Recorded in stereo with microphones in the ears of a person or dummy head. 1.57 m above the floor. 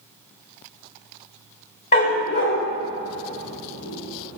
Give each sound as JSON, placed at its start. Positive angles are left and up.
{"t": 1.9, "sound": "a dog barking", "side_deg": 35, "distance_m": 1.4}